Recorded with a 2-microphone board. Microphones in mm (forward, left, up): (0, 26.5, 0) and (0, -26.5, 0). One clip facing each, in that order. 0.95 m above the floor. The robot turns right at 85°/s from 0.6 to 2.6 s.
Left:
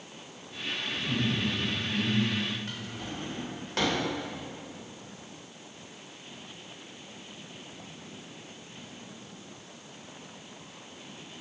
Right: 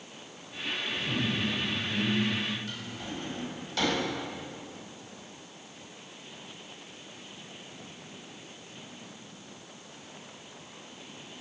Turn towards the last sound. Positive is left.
turn(degrees=50)  # may be behind; listen again after turning